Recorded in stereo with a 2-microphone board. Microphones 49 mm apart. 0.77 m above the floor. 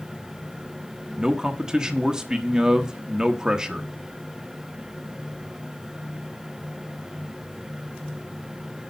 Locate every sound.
1.2 s a man speaking: 15° right (ahead or behind), 1.2 m